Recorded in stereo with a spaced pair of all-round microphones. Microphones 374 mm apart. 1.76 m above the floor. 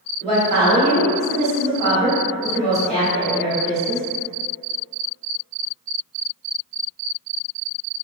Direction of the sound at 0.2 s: 15° left (ahead or behind).